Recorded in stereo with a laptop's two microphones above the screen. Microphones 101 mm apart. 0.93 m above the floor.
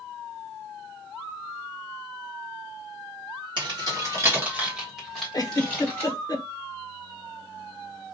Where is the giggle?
40° left (ahead or behind), 0.7 m.